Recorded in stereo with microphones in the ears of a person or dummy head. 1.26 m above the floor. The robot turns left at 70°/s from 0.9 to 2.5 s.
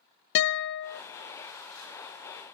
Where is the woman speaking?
No woman speaking in this recording.